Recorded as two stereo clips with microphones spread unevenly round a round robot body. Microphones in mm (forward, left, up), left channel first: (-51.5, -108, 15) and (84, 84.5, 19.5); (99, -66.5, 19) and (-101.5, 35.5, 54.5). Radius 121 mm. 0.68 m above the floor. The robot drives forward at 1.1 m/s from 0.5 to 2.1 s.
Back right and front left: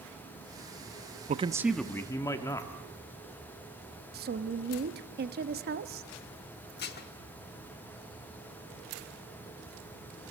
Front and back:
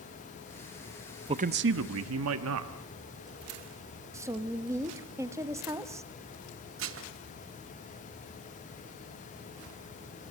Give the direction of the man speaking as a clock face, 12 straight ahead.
9 o'clock.